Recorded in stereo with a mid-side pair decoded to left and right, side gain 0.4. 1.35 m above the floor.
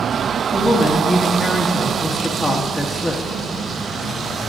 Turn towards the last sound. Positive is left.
turn(degrees=25)